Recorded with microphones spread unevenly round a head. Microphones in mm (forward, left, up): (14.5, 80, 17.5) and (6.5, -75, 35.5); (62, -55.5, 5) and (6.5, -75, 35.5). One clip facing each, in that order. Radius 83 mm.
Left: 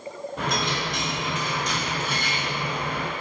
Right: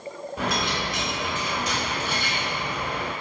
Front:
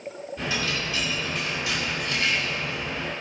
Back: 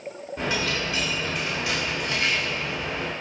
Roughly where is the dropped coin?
Behind.